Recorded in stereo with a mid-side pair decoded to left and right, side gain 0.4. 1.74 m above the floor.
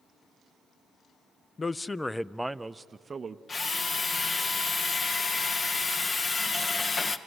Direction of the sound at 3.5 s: 40° left.